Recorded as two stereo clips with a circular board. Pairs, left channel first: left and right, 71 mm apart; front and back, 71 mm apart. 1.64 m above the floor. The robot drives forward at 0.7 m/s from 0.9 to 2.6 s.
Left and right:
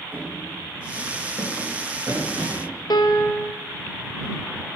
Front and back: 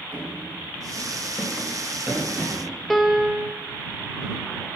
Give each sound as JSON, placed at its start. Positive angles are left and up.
{"t": 0.1, "sound": "running footsteps", "azimuth_deg": -50, "distance_m": 2.0}
{"t": 2.9, "sound": "a piano", "azimuth_deg": 90, "distance_m": 0.6}